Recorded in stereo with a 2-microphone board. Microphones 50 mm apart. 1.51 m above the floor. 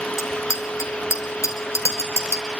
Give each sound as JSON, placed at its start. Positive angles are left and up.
{"t": 0.2, "sound": "a bicycle bell", "side_deg": 80, "distance_m": 3.5}